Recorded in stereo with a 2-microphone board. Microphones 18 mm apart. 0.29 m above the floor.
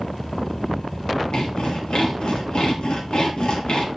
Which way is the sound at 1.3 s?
75° left (ahead or behind).